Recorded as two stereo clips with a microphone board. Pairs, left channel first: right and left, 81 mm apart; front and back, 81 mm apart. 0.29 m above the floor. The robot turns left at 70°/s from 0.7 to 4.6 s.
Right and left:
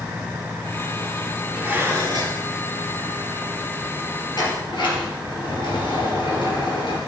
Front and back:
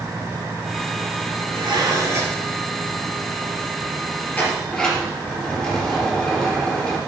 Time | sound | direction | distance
1.5 | dishes clattering | 170° left | 3 m
4.3 | a sliding door | 70° right | 4 m